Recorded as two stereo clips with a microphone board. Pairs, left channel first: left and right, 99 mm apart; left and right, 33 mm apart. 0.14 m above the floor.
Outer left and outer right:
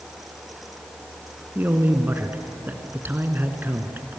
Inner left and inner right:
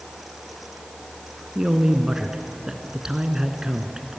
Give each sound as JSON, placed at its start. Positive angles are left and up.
{"t": 1.6, "sound": "a man speaking", "side_deg": -20, "distance_m": 1.6}